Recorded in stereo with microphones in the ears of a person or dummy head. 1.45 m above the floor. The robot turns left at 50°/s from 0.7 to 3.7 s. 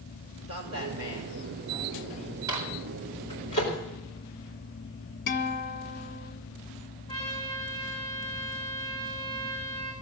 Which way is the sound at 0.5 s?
65° right (ahead or behind).